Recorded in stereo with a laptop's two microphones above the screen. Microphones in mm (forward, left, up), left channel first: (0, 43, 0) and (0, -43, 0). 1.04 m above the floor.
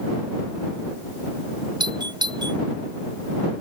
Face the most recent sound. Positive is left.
turn(degrees=-60)  # may be behind; listen again after turning